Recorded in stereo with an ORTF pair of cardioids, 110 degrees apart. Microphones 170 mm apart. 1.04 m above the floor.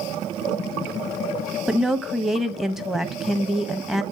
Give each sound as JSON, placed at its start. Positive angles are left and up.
{"t": 1.7, "sound": "a woman speaking", "azimuth_deg": 0, "distance_m": 0.8}